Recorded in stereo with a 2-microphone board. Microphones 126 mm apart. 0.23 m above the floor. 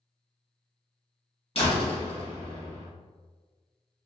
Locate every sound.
1.6 s a door slam: 50° left (ahead or behind), 1.1 m